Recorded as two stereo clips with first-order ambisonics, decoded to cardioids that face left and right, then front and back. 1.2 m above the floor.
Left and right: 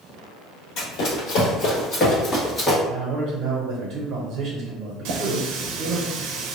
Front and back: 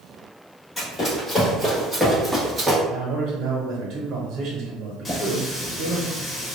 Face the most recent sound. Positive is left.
turn(degrees=-80)